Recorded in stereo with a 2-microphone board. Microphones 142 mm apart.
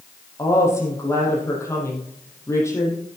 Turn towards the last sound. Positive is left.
turn(degrees=20)  # may be behind; listen again after turning